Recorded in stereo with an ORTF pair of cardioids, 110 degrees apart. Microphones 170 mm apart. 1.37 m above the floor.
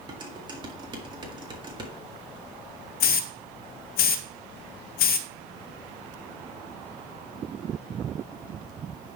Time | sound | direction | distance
0.1 | dishes clattering | 25° right | 1.7 m
3.0 | a hiss | 60° left | 0.5 m